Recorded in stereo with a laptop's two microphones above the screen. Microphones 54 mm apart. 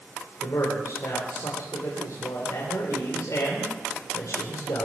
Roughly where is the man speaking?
Left.